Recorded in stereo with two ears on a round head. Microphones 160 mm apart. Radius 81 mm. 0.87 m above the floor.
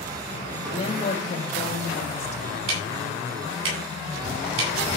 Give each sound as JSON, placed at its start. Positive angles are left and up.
{"t": 0.7, "sound": "a woman speaking", "side_deg": 40, "distance_m": 4.0}
{"t": 2.7, "sound": "ticking", "side_deg": -80, "distance_m": 7.5}